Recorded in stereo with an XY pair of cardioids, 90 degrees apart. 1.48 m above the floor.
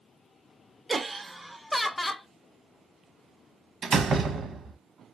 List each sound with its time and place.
0.9 s laughter: 25° right, 0.6 m; by 2.3 s 30° left, 0.9 m
3.8 s a door slam: 55° right, 1.1 m